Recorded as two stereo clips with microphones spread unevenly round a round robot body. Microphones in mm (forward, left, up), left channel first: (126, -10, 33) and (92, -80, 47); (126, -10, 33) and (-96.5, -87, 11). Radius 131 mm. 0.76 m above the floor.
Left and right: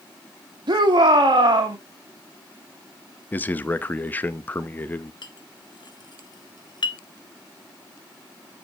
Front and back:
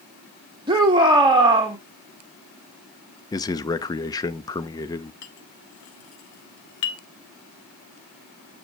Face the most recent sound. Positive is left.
turn(degrees=45)